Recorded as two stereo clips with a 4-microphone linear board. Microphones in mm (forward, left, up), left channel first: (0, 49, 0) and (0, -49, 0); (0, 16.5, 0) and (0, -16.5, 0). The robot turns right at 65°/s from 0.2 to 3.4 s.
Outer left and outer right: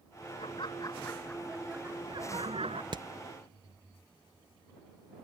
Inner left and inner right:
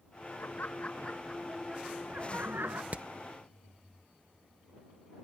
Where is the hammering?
50° right (ahead or behind); by 3.1 s 45° right (ahead or behind).